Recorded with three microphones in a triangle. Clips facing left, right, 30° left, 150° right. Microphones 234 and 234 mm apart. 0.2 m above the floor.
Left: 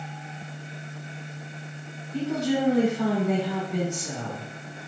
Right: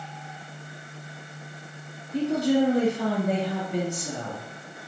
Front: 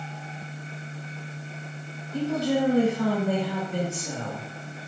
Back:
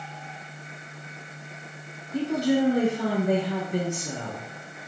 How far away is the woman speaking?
About 1.4 m.